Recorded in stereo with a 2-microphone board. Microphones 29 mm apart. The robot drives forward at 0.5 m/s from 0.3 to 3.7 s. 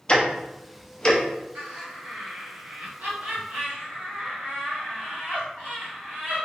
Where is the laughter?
60° right (ahead or behind), 1.7 m.